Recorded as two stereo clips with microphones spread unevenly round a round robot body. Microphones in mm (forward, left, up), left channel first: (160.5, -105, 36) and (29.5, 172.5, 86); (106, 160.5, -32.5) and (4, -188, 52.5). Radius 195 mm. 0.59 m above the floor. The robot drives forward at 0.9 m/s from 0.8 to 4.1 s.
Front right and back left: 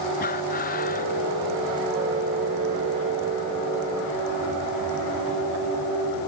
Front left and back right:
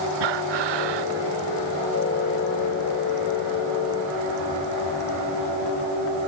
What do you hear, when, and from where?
0.2 s breathing: 135° right